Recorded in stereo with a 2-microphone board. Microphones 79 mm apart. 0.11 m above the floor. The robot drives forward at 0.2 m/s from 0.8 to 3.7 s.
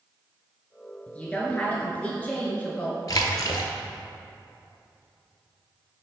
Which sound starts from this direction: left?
A splash, at 3.1 s.